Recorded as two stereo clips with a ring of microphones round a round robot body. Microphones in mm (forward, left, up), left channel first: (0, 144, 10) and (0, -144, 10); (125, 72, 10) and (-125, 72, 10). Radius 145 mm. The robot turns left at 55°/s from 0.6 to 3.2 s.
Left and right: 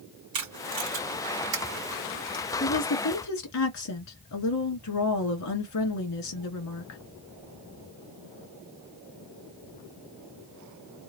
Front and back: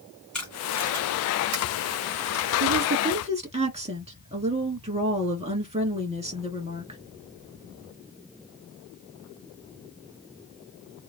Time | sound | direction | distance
0.3 | tape being pulled | 85° right | 2 m
2.6 | a woman speaking | 150° left | 2 m